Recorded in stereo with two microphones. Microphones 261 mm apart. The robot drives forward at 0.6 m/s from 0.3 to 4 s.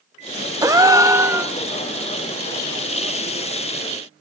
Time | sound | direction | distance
0.6 | a gasp | 15° right (ahead or behind) | 0.7 m